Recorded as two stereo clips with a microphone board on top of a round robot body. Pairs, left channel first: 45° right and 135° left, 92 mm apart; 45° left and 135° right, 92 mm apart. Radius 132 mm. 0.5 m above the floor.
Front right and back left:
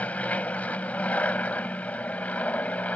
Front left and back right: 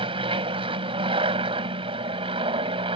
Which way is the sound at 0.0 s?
120° right.